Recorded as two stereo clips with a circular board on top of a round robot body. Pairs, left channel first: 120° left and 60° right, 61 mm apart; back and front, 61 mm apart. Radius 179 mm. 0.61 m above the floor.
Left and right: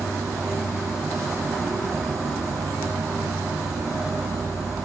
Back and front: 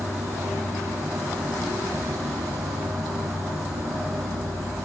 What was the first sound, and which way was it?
An insect, 30° right.